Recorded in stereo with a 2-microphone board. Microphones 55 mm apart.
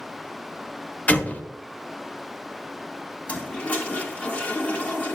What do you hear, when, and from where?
1.1 s an explosion: 25° left (ahead or behind), 0.7 m
3.3 s a toilet flushing: 25° left (ahead or behind), 1.3 m